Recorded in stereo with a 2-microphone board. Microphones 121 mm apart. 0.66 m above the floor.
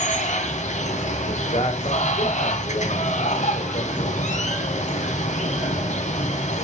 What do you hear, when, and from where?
0.0 s running water: 70° left (ahead or behind), 1.9 m
1.2 s a man speaking: 65° left (ahead or behind), 2.5 m